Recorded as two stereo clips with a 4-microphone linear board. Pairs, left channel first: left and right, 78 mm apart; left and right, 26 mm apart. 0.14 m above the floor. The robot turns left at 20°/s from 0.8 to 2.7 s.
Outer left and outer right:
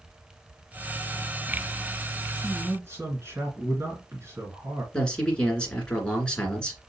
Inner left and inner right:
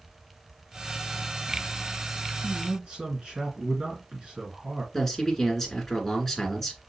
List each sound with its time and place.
2.3 s a man speaking: 30° right (ahead or behind), 2 m; by 4.8 s 35° right (ahead or behind), 2 m
4.9 s a man speaking: 10° left (ahead or behind), 1.9 m